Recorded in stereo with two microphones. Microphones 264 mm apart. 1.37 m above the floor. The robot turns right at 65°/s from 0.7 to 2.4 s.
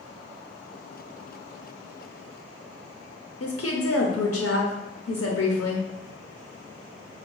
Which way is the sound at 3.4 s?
60° left (ahead or behind).